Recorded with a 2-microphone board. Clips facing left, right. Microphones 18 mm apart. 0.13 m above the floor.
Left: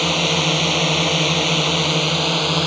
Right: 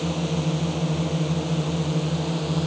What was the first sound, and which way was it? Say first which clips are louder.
A drone: left 9 dB; 60° left (ahead or behind).